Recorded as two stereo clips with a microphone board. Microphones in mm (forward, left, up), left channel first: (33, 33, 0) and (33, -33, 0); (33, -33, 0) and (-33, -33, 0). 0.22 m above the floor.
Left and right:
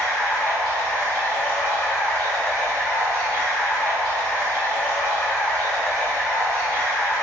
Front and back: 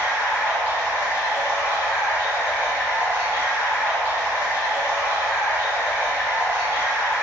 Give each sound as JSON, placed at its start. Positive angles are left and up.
{"t": 0.0, "sound": "running water", "azimuth_deg": 25, "distance_m": 1.2}